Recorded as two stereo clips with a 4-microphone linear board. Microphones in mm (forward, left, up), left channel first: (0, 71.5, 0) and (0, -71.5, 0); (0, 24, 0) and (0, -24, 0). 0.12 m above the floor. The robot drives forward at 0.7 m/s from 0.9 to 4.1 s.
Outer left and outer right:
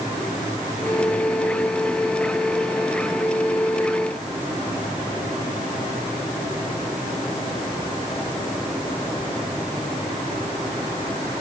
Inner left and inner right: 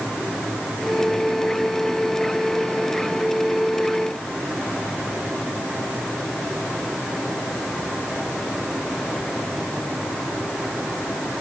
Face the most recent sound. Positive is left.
No sound to turn to.